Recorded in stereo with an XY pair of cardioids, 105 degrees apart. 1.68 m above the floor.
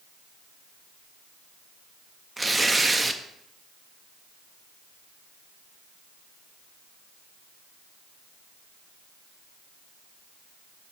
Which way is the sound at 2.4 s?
20° right.